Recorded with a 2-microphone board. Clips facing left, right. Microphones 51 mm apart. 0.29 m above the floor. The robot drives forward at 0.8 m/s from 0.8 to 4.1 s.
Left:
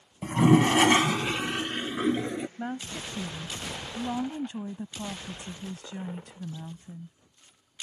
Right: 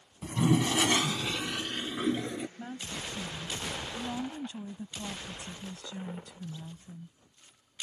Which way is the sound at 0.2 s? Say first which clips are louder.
Left 7 dB; 50° left (ahead or behind).